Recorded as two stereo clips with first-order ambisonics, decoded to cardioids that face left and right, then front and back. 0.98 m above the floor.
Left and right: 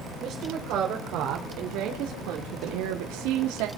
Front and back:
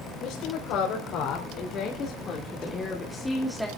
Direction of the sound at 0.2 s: 40° right.